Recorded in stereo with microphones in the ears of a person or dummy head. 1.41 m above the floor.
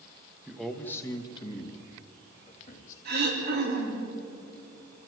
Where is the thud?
I don't hear a thud.